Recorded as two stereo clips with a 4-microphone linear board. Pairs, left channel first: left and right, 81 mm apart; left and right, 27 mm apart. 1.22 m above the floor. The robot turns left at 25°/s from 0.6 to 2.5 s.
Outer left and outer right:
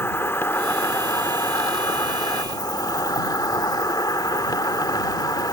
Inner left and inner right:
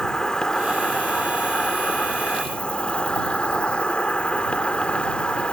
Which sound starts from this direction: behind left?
An insect, at 0.0 s.